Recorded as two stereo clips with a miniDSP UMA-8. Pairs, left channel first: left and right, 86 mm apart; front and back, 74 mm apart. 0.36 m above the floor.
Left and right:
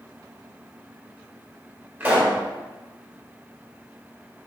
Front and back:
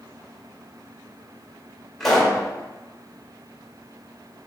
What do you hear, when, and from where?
2.0 s a pop: 85° right, 1.3 m